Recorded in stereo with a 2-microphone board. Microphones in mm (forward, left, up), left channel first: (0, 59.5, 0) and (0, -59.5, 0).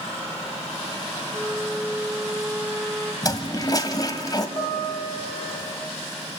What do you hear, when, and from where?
1.3 s a flute: 10° right (ahead or behind), 0.9 m
3.2 s a toilet flushing: 30° left (ahead or behind), 1.4 m
4.6 s a guitar: 20° left (ahead or behind), 5 m